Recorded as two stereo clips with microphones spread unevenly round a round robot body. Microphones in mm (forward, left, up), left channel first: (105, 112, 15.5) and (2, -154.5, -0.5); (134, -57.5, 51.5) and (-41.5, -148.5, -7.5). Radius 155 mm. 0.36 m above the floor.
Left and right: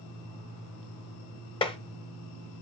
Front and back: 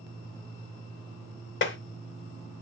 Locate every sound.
1.6 s tapping: 5° right, 0.9 m